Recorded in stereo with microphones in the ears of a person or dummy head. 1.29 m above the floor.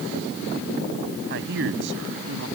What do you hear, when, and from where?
1.3 s a man speaking: 65° right (ahead or behind); by 2.5 s 75° right (ahead or behind)